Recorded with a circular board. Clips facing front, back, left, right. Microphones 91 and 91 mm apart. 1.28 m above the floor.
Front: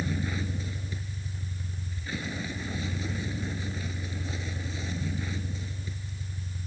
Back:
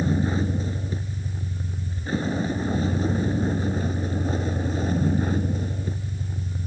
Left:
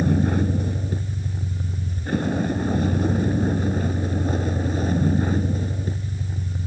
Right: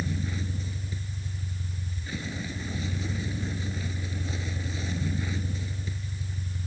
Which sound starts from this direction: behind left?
A vehicle, at 0.0 s.